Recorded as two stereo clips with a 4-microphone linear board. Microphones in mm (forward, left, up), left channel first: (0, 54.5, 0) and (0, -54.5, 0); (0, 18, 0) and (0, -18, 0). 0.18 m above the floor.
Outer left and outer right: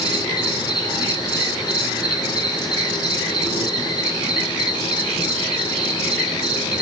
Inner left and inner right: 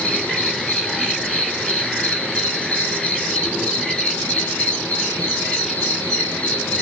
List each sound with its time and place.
0.0 s an insect: 40° left (ahead or behind), 3.5 m